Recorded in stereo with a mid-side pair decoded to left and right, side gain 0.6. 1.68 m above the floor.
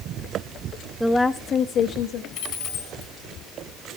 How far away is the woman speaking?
About 1.0 m.